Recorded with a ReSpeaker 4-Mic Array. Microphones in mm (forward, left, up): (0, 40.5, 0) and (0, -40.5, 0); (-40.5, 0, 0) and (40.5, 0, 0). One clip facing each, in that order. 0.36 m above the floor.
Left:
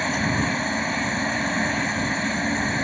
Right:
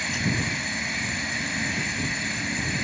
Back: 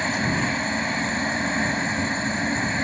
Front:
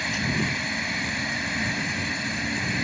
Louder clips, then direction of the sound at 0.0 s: Left 5 dB, back 3 dB; 130° left.